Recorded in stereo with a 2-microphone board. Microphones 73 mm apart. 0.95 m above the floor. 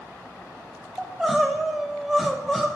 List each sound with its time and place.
1.0 s crying: 5° right (ahead or behind), 0.6 m